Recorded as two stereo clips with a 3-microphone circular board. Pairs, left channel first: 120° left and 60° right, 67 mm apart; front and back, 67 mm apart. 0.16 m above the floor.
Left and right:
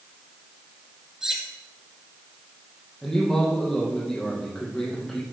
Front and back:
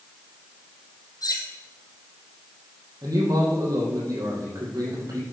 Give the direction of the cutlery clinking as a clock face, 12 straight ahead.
11 o'clock.